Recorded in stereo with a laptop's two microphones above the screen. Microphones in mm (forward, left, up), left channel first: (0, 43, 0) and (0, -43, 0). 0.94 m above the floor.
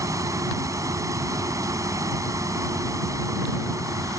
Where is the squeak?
No squeak in this recording.